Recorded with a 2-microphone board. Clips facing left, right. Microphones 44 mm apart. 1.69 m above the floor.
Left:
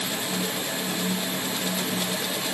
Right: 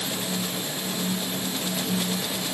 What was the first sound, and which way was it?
Only background noise.